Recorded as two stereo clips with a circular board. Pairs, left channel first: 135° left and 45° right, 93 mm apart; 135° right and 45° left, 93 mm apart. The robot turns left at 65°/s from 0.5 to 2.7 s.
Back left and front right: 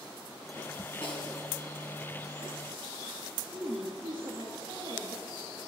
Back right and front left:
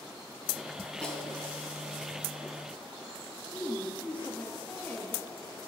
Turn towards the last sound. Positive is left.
turn(degrees=-50)